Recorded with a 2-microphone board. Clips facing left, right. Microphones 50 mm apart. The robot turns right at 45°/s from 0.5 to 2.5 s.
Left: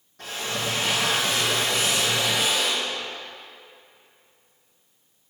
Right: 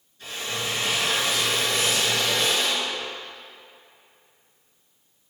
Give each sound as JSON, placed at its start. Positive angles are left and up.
{"t": 0.2, "sound": "a drill", "azimuth_deg": 80, "distance_m": 3.0}